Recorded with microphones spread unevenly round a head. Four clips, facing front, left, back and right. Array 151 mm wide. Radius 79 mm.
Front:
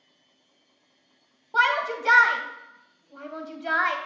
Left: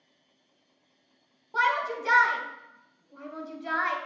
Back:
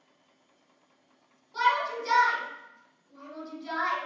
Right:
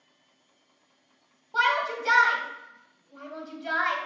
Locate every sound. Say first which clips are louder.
1.5 s a shout: right 1 dB, front 3 dB; 5° left, 1.8 m